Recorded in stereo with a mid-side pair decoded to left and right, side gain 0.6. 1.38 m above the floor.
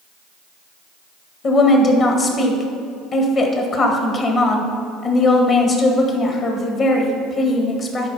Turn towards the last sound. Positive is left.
turn(degrees=45)